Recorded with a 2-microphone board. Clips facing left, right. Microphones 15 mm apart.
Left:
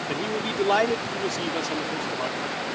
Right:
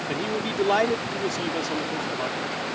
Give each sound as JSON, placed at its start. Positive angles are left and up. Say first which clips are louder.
{"t": 0.1, "sound": "a man speaking", "louder": "even", "side_deg": 5}